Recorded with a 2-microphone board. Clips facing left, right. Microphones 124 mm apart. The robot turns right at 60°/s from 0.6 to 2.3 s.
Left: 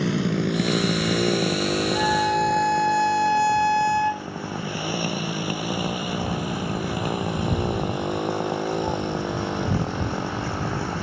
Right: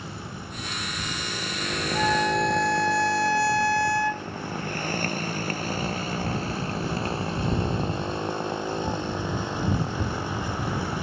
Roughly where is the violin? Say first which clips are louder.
Right 1 dB; centre.